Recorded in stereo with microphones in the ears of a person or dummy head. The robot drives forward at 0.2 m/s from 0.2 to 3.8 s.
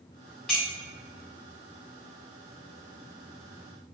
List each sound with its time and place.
0.5 s a clink: 5° left (ahead or behind), 0.7 m